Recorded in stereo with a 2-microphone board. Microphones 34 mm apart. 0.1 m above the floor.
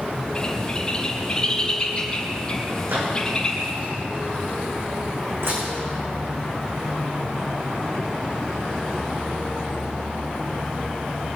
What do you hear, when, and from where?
0.3 s a bird: 25° left (ahead or behind), 2.5 m
2.9 s a microwave: 75° right (ahead or behind), 5.5 m
5.4 s dishes clattering: 80° right, 5.5 m